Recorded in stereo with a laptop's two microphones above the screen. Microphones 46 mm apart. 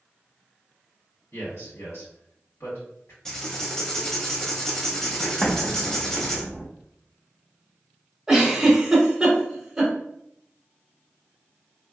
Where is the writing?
15° left (ahead or behind), 0.5 m.